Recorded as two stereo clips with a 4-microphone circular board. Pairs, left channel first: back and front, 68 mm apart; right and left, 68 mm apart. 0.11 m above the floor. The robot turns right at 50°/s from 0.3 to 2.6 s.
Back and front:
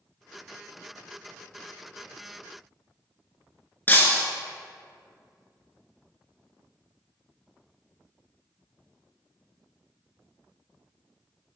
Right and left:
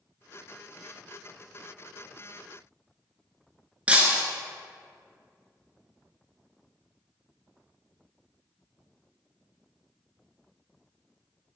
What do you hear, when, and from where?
3.9 s breaking glass: 145° left, 1.0 m